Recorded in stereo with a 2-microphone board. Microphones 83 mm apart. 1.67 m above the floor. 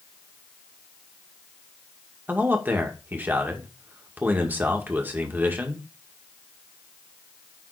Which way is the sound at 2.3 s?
25° right (ahead or behind).